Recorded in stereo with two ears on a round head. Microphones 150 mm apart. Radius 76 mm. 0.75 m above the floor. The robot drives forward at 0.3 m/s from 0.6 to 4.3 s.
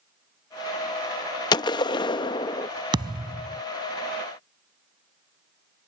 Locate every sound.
1.5 s a gunshot: 25° left (ahead or behind)
2.9 s a thud: 30° right (ahead or behind); by 3.6 s 25° right (ahead or behind)